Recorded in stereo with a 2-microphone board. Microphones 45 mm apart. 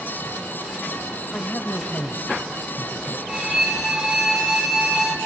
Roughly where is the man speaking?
Left.